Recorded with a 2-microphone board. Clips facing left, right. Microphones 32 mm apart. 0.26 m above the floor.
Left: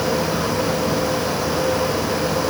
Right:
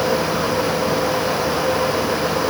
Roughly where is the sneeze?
No sneeze in this recording.